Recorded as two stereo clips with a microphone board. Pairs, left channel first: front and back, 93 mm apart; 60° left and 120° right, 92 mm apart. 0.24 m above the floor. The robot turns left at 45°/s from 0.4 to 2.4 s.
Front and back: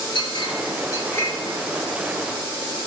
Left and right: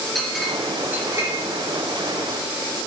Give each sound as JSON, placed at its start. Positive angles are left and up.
{"t": 0.1, "sound": "a clink", "azimuth_deg": -25, "distance_m": 3.0}